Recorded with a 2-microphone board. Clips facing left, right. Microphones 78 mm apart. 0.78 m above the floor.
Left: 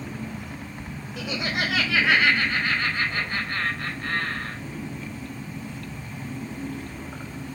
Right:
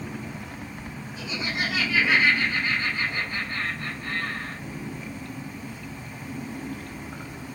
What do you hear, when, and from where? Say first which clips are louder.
1.2 s laughter: left 2 dB; 60° left (ahead or behind), 3.5 m